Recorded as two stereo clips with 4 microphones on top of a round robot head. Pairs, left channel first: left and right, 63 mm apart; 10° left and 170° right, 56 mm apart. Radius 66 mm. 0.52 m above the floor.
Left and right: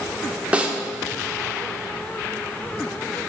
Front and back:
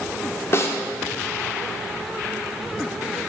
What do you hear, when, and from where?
0.5 s a snare drum: 20° right, 0.9 m